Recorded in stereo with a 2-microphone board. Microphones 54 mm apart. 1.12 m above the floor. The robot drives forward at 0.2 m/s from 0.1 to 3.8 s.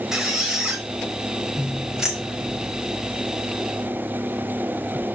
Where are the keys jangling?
15° right (ahead or behind), 1.2 m.